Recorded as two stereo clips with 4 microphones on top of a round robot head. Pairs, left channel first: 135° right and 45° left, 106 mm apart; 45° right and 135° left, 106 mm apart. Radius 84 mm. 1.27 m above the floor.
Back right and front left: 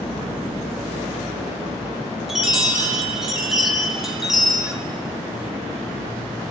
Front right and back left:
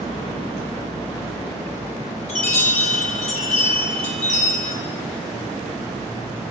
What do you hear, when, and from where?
2.3 s a chime: 40° right, 1.2 m